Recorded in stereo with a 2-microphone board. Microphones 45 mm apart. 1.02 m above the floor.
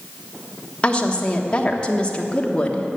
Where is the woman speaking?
25° left (ahead or behind), 1.2 m.